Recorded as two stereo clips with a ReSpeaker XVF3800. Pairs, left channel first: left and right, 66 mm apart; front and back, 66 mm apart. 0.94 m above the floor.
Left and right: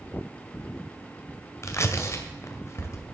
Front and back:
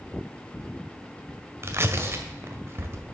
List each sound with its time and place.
1.6 s tearing paper: 135° left, 1.8 m